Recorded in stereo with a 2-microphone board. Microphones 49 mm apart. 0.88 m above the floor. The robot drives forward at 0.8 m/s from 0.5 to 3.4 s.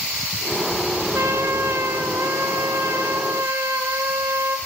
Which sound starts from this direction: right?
A trumpet, at 1.1 s.